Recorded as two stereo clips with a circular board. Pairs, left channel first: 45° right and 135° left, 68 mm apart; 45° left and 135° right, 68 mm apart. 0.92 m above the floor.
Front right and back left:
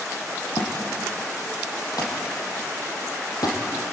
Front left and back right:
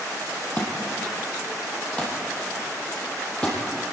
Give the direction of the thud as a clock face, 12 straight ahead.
1 o'clock.